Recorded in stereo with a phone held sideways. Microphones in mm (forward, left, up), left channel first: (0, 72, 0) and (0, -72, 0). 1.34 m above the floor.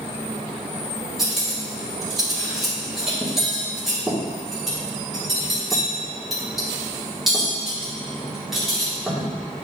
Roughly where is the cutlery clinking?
Centre.